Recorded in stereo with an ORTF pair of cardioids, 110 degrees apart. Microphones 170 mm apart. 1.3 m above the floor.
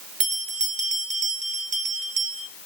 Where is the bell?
45° right, 0.9 m.